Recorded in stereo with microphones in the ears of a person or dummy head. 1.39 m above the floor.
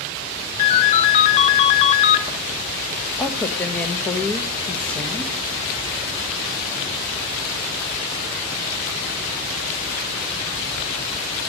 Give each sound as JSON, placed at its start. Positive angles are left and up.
{"t": 0.6, "sound": "a ringtone", "side_deg": 40, "distance_m": 1.0}
{"t": 3.2, "sound": "a woman speaking", "side_deg": 10, "distance_m": 1.2}